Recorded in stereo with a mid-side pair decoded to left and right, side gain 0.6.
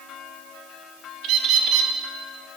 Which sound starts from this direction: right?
A bird, at 1.2 s.